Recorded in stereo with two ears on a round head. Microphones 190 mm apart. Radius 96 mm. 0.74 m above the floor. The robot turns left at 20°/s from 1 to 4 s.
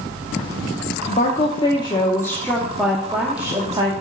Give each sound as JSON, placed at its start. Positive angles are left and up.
{"t": 1.1, "sound": "a woman speaking", "azimuth_deg": 35, "distance_m": 1.0}